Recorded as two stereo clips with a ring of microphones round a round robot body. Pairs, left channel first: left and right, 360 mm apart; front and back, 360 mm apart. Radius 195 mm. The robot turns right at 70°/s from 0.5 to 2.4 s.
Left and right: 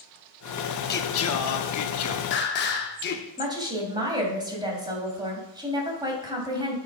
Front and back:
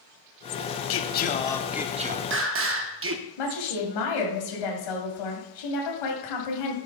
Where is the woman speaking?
10° right, 3 m.